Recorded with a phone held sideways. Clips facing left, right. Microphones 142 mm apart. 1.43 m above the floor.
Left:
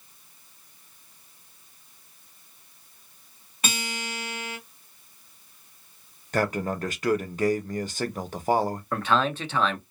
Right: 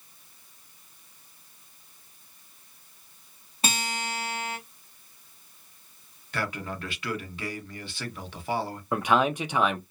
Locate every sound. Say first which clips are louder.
3.6 s a guitar: right 2 dB; 30° right (ahead or behind), 1.8 m
6.3 s a man speaking: left 7 dB; 45° left (ahead or behind), 0.6 m
8.9 s a man speaking: right 2 dB; 15° right (ahead or behind), 0.6 m